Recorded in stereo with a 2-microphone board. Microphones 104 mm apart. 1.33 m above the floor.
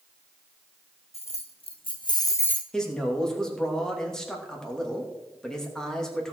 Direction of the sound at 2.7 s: 5° left (ahead or behind).